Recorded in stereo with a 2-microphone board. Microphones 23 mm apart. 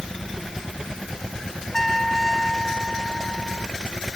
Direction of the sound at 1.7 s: 10° left (ahead or behind).